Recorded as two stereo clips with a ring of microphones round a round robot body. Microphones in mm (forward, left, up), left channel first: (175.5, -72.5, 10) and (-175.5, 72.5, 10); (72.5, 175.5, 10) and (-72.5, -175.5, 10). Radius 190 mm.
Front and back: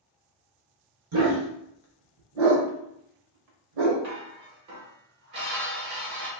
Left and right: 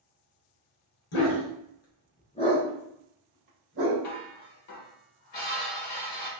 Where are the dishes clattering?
110° left, 1.3 m.